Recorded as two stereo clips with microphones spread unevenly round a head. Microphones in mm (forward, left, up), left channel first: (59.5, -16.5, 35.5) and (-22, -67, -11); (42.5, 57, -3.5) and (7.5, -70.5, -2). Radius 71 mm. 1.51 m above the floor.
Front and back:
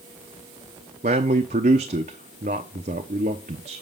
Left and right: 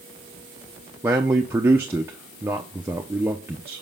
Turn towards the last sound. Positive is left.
turn(degrees=180)